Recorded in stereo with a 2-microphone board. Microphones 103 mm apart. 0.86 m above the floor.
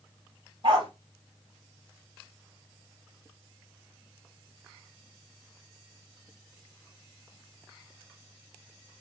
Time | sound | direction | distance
0.6 | a dog barking | 60° right (ahead or behind) | 1.1 m